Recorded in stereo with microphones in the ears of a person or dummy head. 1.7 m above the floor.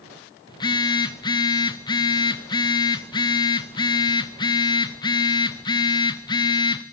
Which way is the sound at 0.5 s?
20° left (ahead or behind).